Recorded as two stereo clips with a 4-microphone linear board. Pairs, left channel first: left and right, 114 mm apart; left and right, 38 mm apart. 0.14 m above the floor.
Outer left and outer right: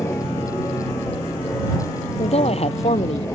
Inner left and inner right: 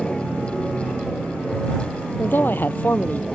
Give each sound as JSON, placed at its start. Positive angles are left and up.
{"t": 0.0, "sound": "an aircraft", "side_deg": 20}
{"t": 2.2, "sound": "a man speaking", "side_deg": 65}